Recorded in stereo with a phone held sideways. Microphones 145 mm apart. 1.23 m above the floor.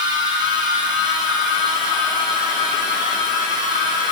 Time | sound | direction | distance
0.0 | a machine running | 30° right (ahead or behind) | 4.5 m